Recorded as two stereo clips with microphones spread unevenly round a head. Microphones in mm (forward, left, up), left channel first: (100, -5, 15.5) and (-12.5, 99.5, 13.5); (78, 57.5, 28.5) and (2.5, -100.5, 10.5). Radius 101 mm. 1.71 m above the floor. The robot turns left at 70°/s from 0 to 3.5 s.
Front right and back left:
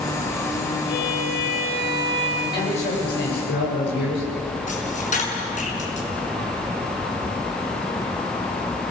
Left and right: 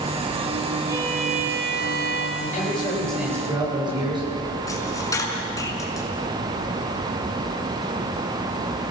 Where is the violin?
40° right, 4.5 m; by 2.3 s 140° right, 4.5 m.